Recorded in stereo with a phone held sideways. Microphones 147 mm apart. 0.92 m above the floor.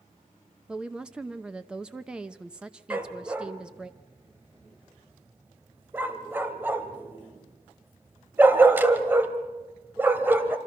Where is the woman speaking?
5° right (ahead or behind), 0.7 m.